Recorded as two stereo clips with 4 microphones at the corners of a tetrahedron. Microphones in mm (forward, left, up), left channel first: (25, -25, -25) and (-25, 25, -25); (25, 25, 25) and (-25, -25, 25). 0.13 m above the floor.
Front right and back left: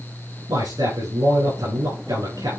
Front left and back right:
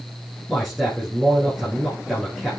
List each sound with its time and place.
0.5 s a man speaking: 130° left, 7.5 m